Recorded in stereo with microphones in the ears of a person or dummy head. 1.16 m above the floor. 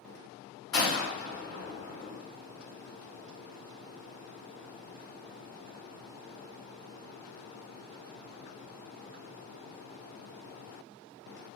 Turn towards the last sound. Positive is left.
turn(degrees=40)  # may be behind; listen again after turning